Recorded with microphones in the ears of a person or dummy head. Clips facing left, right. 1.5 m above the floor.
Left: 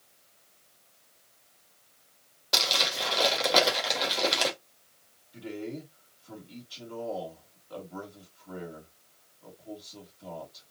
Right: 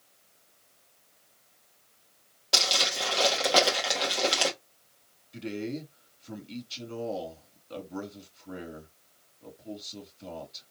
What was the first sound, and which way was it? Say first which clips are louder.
Crumpling: right 1 dB; centre (ahead or behind).